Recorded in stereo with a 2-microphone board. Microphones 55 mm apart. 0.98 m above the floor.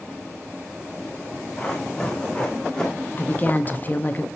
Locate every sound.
1.6 s running footsteps: 10° left (ahead or behind), 3 m
3.2 s a woman speaking: 30° left (ahead or behind), 0.7 m